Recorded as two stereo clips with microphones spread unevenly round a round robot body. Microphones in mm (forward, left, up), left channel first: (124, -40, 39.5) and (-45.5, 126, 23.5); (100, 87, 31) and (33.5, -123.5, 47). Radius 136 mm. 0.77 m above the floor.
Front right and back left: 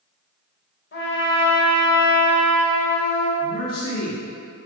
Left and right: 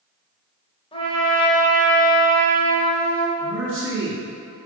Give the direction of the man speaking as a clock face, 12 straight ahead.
3 o'clock.